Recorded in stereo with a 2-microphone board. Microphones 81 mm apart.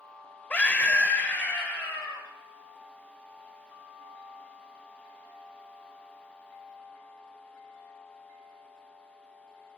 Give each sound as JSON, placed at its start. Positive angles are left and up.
{"t": 0.5, "sound": "a scream", "side_deg": 20, "distance_m": 1.1}